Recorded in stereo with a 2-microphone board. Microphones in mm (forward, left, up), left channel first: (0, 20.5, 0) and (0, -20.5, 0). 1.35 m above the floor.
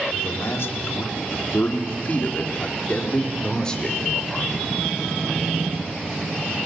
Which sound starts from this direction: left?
A man speaking, at 0.1 s.